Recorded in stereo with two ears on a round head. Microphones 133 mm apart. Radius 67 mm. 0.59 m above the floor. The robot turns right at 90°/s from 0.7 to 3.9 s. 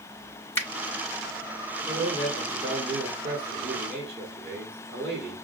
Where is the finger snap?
15° left (ahead or behind), 1.1 m.